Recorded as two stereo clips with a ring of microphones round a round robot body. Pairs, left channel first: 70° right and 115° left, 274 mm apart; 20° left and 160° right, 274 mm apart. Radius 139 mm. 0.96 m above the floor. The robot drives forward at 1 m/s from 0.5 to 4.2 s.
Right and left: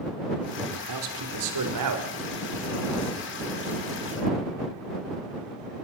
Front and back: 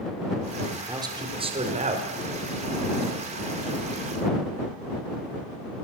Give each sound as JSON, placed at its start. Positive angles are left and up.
{"t": 0.7, "sound": "a man speaking", "azimuth_deg": 120, "distance_m": 3.5}